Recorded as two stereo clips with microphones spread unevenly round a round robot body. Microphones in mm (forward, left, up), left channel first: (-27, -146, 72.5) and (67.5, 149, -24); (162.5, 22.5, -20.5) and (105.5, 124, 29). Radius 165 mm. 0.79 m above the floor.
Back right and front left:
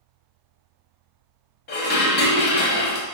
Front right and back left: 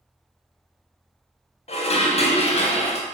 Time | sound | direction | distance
1.7 | dishes clattering | 45° right | 0.8 m